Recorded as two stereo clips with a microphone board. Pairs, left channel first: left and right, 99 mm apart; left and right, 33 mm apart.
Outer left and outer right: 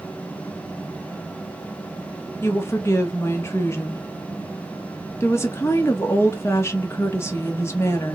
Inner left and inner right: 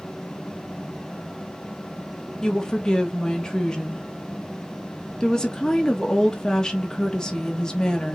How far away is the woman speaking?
About 1.0 m.